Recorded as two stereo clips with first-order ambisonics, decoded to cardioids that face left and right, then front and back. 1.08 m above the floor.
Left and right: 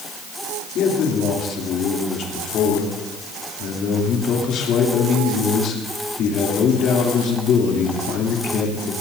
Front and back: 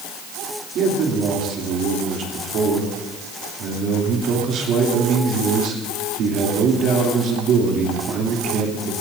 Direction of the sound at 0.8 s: 135° left.